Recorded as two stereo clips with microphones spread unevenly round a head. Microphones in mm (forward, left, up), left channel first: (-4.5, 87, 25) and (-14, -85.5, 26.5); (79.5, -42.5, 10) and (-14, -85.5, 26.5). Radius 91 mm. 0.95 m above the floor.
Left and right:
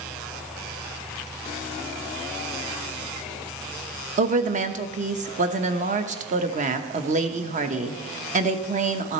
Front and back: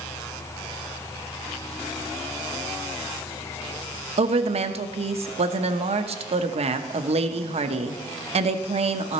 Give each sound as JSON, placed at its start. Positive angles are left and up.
{"t": 4.2, "sound": "a woman speaking", "azimuth_deg": -135, "distance_m": 0.9}